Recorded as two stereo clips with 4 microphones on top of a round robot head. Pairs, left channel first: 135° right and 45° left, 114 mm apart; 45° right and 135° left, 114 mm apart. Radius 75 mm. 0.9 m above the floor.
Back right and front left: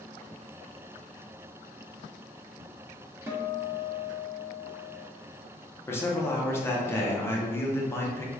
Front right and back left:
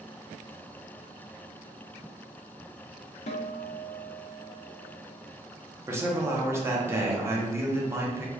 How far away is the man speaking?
About 0.8 m.